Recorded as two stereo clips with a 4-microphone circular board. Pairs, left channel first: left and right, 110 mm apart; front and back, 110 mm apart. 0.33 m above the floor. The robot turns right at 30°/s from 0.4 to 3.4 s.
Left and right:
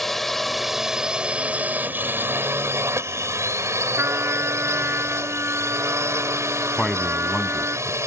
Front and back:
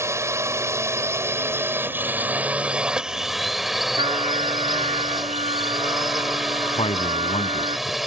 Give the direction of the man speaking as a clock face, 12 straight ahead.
12 o'clock.